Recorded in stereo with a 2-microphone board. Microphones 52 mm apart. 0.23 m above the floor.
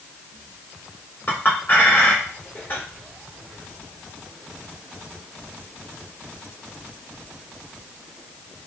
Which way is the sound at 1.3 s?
35° left (ahead or behind).